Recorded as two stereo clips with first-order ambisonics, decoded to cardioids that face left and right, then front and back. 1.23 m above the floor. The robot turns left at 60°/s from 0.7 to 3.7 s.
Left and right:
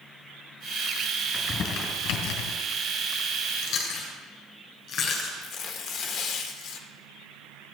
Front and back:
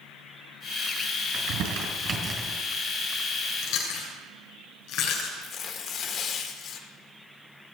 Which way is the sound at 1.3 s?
170° left.